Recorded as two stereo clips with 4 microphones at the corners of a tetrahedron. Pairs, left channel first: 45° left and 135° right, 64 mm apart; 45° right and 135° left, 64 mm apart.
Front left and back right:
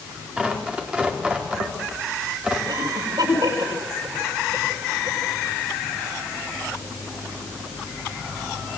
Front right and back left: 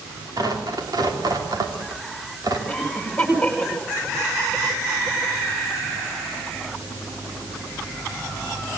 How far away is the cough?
About 10 m.